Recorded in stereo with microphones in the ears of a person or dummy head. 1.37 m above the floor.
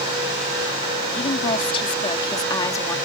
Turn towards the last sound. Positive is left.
turn(degrees=15)  # may be behind; listen again after turning